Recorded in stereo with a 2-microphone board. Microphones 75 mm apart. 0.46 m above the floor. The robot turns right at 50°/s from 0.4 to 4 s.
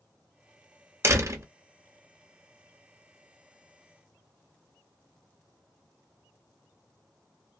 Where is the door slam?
35° right (ahead or behind), 0.7 m; by 1.5 s 40° right (ahead or behind), 0.7 m.